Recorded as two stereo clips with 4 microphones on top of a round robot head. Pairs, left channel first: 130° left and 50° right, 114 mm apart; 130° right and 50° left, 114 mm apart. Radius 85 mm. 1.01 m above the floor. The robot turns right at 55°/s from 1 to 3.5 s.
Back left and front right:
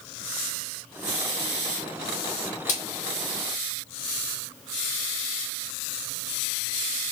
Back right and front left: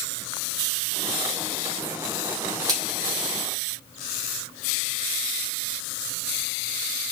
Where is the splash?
105° left, 2.5 m; by 2.8 s 115° left, 2.5 m.